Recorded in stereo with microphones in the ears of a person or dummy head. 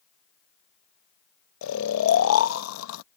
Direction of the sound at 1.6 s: 75° left (ahead or behind).